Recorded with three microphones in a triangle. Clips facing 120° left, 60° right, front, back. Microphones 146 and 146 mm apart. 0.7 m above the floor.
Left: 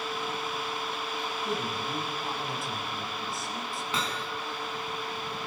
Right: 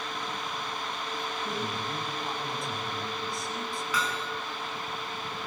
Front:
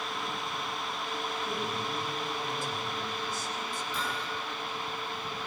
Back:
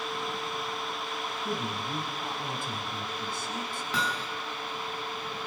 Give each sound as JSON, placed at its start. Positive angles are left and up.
{"t": 1.4, "sound": "a man speaking", "azimuth_deg": -150, "distance_m": 6.5}
{"t": 3.9, "sound": "hammering", "azimuth_deg": 180, "distance_m": 4.5}